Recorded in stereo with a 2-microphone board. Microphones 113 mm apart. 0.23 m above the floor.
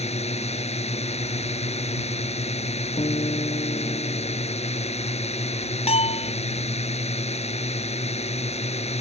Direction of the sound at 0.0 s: 70° left (ahead or behind).